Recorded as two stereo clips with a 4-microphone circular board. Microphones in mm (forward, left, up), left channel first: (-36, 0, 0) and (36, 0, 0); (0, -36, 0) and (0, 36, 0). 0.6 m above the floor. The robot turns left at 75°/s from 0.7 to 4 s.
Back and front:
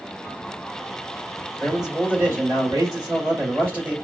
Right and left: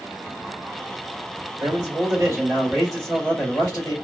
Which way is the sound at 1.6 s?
100° left.